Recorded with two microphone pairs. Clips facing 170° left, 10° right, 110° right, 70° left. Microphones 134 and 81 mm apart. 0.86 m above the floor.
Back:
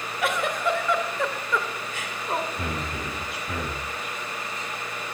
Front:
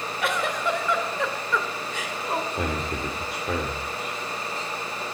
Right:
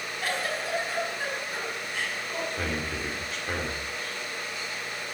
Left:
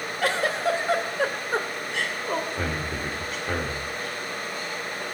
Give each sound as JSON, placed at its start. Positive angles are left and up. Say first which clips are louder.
{"t": 0.2, "sound": "a giggle", "louder": "back 1 dB, left 7 dB", "azimuth_deg": 80, "distance_m": 2.0}
{"t": 2.5, "sound": "a man speaking", "louder": "front 3 dB, left 2 dB", "azimuth_deg": -10, "distance_m": 2.5}